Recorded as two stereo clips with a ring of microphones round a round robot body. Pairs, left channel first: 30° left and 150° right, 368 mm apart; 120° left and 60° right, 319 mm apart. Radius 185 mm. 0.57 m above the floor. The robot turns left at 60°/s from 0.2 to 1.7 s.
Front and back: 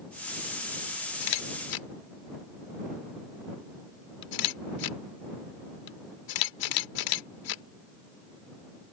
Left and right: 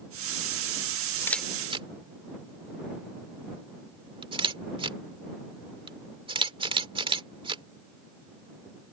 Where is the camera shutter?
40° left; by 7.6 s 10° left.